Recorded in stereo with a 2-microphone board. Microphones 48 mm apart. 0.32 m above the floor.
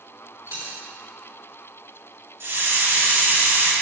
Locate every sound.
0.5 s a dropped coin: 85° right, 3 m
2.4 s a hiss: 55° right (ahead or behind), 2.5 m